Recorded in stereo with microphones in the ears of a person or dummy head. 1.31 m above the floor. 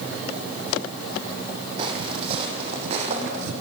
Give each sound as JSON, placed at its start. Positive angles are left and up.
{"t": 1.8, "sound": "footsteps", "side_deg": -25, "distance_m": 4.0}